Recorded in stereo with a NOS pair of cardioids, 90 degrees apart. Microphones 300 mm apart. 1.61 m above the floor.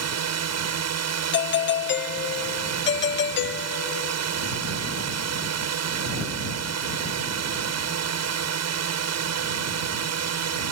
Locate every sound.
0.0 s a drone: 60° right
1.3 s a doorbell: 40° left